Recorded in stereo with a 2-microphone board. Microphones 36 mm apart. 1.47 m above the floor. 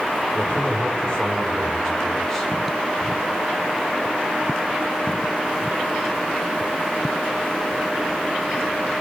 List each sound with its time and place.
0.3 s a man speaking: 40° left (ahead or behind), 4 m; by 2.5 s 10° left (ahead or behind), 4.5 m